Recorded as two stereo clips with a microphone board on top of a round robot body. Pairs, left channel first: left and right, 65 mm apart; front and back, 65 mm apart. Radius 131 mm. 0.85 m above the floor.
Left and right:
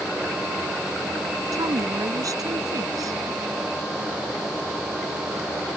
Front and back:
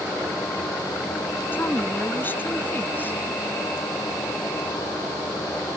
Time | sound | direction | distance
1.5 | a woman speaking | 60° right | ?